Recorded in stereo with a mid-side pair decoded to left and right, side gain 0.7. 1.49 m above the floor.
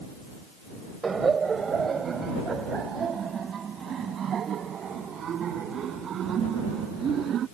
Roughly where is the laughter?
Ahead right.